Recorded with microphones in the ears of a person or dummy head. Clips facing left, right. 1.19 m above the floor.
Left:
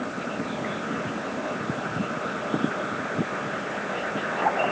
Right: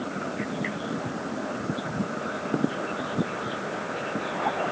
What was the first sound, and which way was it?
Only background noise.